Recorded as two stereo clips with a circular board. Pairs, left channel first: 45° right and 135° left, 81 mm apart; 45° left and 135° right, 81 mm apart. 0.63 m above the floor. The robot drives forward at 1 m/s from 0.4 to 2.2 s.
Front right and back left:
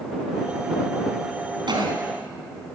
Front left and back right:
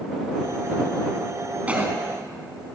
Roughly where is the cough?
Behind left.